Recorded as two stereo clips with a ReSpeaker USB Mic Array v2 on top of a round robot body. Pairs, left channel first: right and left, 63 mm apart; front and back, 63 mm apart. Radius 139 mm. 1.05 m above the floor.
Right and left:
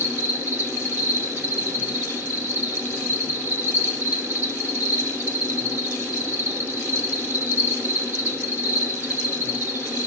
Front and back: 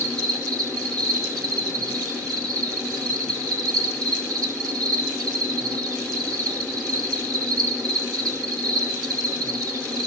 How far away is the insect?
About 4.5 m.